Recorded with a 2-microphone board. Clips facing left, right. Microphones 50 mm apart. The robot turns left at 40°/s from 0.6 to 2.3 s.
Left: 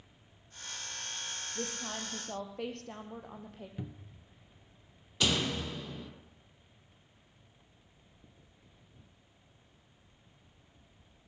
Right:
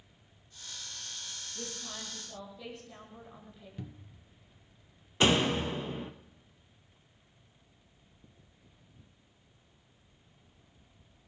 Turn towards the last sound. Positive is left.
turn(degrees=-35)  # may be behind; listen again after turning